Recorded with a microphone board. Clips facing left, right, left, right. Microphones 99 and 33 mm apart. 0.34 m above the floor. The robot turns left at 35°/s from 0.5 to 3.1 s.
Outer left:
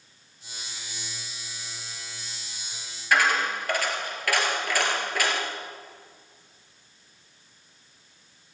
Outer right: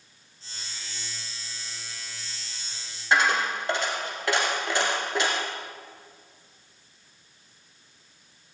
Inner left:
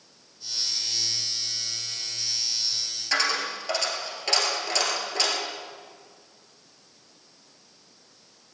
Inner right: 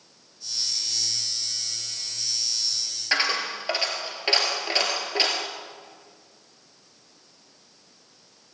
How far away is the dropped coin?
About 1.7 m.